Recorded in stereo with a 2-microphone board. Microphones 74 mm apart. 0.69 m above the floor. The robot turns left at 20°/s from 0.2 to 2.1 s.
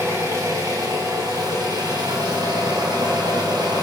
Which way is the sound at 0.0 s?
45° right.